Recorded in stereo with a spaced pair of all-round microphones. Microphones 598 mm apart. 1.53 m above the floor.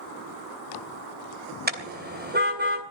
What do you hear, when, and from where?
1.7 s a car horn: 15° right (ahead or behind), 3 m